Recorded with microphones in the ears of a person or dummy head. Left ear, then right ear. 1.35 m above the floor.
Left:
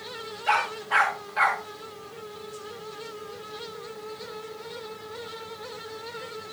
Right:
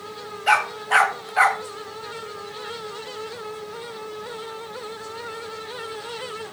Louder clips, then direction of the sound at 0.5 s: Right 5 dB; 30° right (ahead or behind).